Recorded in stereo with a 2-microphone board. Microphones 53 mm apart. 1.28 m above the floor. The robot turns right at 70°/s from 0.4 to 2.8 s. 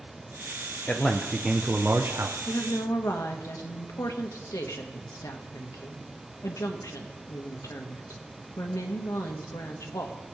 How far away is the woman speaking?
About 1.5 m.